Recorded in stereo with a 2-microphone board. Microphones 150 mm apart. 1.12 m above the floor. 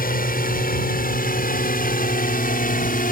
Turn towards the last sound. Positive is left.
turn(degrees=70)  # may be behind; listen again after turning